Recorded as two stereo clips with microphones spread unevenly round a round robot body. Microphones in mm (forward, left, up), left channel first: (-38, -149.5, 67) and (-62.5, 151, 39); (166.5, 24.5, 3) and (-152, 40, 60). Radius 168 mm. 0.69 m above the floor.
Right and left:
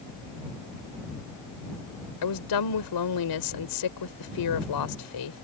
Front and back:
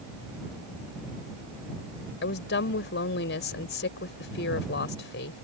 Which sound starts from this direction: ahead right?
A woman speaking, at 2.2 s.